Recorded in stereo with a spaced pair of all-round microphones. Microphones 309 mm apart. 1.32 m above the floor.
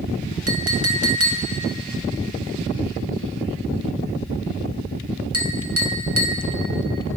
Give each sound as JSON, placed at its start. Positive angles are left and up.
{"t": 0.5, "sound": "a clink", "side_deg": -50, "distance_m": 1.3}